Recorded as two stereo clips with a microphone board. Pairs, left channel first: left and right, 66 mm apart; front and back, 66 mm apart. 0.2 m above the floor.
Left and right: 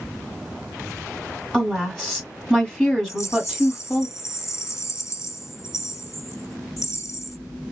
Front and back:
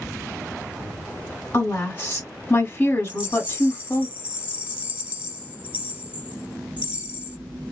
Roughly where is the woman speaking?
Ahead.